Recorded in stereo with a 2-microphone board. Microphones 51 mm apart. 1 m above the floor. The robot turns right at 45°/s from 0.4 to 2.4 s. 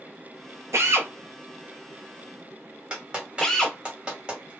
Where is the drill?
65° right (ahead or behind), 0.6 m; by 3.8 s 10° left (ahead or behind), 0.6 m.